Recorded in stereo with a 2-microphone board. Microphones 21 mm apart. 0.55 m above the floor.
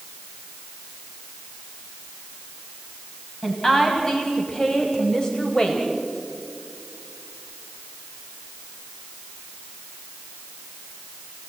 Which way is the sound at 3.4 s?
25° left (ahead or behind).